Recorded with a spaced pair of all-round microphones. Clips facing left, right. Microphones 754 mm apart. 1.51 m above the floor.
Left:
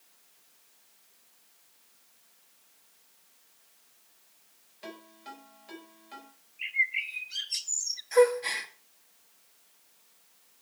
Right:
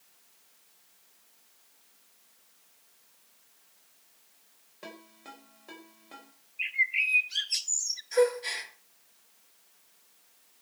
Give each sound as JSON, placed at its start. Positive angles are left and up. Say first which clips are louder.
{"t": 4.8, "sound": "a ringtone", "louder": "left 2 dB", "side_deg": -70, "distance_m": 5.5}
{"t": 6.6, "sound": "a bird", "louder": "right 1 dB", "side_deg": -35, "distance_m": 0.5}
{"t": 8.1, "sound": "a gasp", "louder": "left 3 dB", "side_deg": 75, "distance_m": 2.0}